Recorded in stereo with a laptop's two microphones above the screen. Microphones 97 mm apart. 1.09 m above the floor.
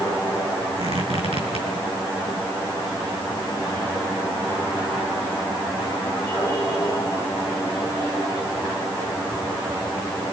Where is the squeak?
85° right, 7 m.